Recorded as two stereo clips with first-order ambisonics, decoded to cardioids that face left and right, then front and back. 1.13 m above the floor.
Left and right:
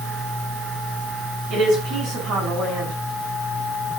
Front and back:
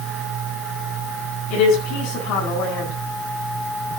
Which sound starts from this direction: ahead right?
A woman speaking, at 1.5 s.